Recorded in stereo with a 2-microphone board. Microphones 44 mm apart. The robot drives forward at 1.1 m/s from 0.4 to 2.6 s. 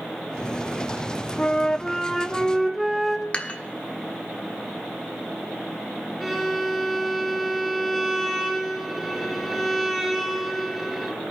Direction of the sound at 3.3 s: 35° left (ahead or behind).